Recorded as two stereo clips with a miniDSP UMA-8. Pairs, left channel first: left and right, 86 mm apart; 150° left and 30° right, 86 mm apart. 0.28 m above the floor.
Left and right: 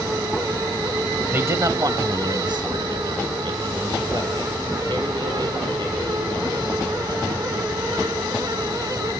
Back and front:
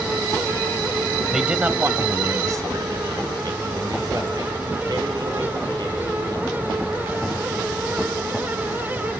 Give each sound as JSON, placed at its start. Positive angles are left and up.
{"t": 1.3, "sound": "a man speaking", "azimuth_deg": -115, "distance_m": 0.9}